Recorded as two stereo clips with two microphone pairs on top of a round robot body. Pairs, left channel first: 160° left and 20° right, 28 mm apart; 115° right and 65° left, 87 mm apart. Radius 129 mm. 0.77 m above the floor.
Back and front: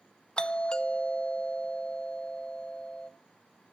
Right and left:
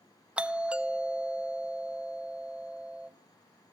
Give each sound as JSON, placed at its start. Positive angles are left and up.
{"t": 0.4, "sound": "a doorbell", "azimuth_deg": 160, "distance_m": 0.8}